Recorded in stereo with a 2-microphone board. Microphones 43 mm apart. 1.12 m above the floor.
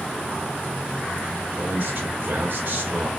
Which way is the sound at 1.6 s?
50° right (ahead or behind).